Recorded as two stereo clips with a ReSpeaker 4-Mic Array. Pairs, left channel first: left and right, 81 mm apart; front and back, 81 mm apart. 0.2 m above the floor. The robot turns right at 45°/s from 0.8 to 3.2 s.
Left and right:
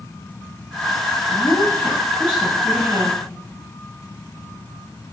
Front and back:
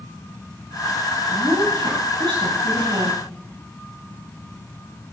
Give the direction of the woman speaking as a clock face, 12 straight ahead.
8 o'clock.